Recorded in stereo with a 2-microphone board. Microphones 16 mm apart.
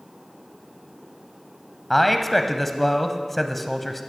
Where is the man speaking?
5° left (ahead or behind), 1.0 m.